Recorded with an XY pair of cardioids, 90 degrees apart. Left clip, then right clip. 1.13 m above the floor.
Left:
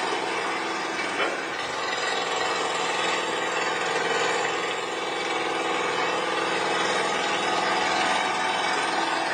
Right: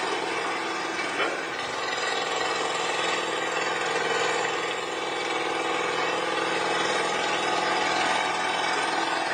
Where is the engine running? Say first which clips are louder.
Left 1 dB; 5° left, 2.5 m.